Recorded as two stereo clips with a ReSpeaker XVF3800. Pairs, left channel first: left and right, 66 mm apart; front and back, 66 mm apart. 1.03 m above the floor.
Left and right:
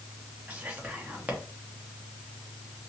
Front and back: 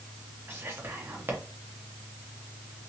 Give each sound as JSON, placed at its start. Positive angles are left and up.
{"t": 0.5, "sound": "whispering", "azimuth_deg": -140, "distance_m": 0.7}